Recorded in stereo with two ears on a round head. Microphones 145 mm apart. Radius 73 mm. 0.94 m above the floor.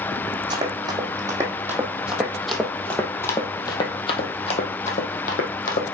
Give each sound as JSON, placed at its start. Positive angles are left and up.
{"t": 0.5, "sound": "running footsteps", "side_deg": -25, "distance_m": 2.0}